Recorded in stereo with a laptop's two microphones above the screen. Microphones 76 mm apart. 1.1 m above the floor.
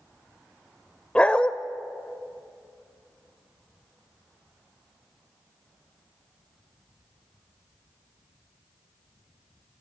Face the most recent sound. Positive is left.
turn(degrees=15)  # may be behind; listen again after turning